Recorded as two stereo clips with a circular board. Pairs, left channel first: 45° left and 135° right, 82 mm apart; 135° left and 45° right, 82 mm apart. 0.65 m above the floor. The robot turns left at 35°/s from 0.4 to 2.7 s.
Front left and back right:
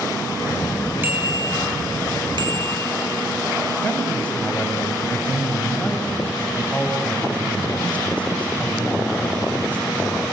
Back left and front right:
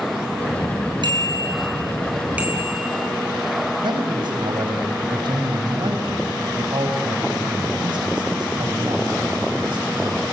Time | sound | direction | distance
1.0 | a bicycle bell | 70° right | 5 m
3.8 | a man speaking | 25° right | 3.5 m